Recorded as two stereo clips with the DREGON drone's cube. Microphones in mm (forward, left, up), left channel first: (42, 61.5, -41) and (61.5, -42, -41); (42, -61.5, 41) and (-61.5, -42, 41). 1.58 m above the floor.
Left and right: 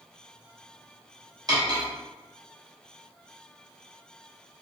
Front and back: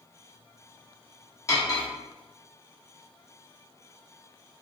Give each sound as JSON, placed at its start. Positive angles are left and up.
{"t": 1.5, "sound": "cutlery clinking", "azimuth_deg": -55, "distance_m": 1.0}